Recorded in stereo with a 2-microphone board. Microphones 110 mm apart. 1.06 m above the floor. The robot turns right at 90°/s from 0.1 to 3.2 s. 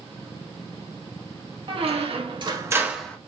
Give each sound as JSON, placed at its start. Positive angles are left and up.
{"t": 1.7, "sound": "a squeak", "azimuth_deg": -120, "distance_m": 0.5}